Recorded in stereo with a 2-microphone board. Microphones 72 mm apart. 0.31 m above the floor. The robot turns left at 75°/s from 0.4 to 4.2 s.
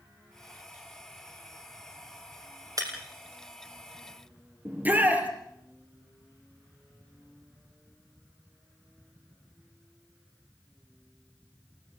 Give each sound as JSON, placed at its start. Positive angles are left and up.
{"t": 2.8, "sound": "breaking glass", "side_deg": -50, "distance_m": 4.5}
{"t": 4.7, "sound": "a shout", "side_deg": -25, "distance_m": 5.0}